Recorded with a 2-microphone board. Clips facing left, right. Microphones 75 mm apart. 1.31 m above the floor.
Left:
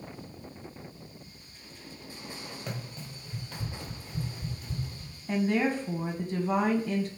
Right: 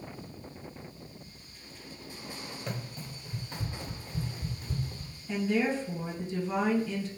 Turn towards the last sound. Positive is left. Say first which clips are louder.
# left 2 dB
turn(degrees=55)  # may be behind; listen again after turning